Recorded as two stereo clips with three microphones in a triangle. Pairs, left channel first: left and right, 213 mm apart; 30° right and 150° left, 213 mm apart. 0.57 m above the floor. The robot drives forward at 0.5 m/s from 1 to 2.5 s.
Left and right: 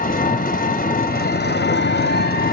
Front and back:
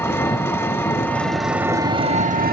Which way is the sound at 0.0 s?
45° left.